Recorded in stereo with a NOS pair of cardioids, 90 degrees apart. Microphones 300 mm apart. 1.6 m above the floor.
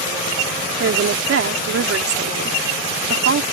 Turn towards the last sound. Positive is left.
turn(degrees=-50)